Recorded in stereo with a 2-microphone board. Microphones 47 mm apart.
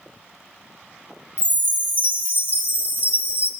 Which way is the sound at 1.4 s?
40° right (ahead or behind).